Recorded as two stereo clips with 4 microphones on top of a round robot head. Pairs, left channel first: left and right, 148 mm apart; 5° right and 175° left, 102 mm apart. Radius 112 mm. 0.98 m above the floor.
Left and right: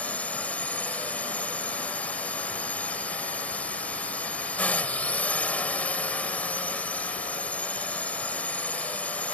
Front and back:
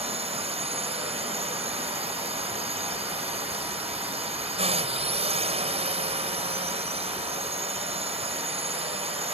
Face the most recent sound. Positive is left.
turn(degrees=170)